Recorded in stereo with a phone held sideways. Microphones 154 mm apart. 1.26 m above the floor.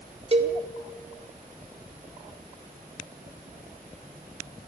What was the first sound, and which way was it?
A cowbell, 35° right (ahead or behind).